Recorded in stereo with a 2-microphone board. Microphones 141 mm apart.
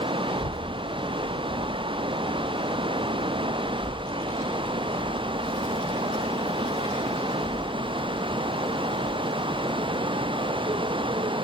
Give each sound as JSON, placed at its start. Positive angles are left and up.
{"t": 0.3, "sound": "a child speaking", "side_deg": 70, "distance_m": 3.5}